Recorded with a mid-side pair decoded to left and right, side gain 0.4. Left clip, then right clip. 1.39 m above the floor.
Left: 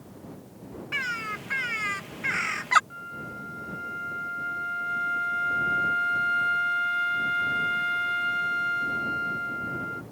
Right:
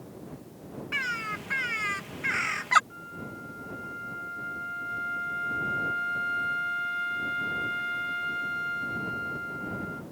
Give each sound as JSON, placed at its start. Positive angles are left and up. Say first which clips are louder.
{"t": 0.9, "sound": "a bird", "louder": "left 1 dB", "azimuth_deg": 5}
{"t": 2.9, "sound": "a flute", "louder": "left 3 dB", "azimuth_deg": 35}